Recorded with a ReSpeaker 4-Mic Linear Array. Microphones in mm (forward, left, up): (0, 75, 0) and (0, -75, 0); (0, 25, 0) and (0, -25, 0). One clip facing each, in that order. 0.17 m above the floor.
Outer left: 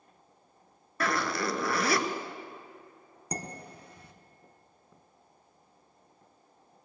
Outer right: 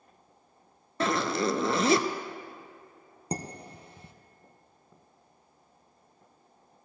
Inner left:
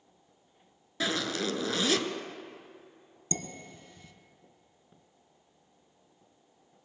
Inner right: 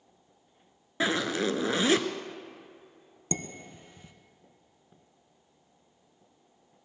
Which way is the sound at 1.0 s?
25° right (ahead or behind).